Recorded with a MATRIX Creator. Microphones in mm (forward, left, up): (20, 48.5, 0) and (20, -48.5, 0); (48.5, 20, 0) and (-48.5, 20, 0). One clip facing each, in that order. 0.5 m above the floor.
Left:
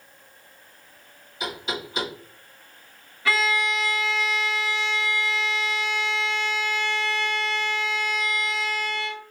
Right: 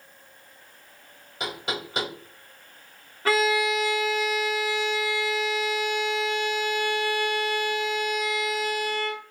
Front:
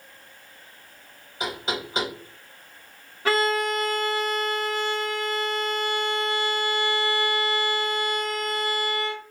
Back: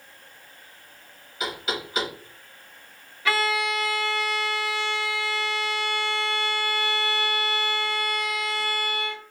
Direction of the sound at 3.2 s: 45° right.